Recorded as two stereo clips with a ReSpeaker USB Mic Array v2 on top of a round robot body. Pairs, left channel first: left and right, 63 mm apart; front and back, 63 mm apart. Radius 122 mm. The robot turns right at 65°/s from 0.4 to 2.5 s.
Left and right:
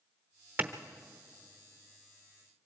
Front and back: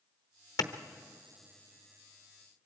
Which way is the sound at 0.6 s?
25° right.